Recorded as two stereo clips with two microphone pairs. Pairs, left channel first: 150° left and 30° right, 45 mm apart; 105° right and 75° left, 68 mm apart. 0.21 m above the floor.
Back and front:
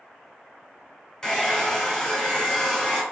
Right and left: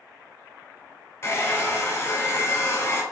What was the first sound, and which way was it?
A hair dryer, 140° right.